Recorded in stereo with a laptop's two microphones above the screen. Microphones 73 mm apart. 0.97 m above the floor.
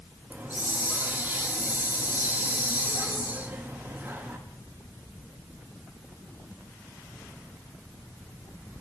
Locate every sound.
0.3 s a hiss: 25° right (ahead or behind), 1.0 m